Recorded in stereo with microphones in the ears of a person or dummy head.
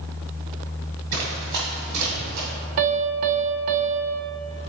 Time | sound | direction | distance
1.1 | running footsteps | 45° right (ahead or behind) | 1.5 m
2.8 | a piano | 50° right (ahead or behind) | 0.5 m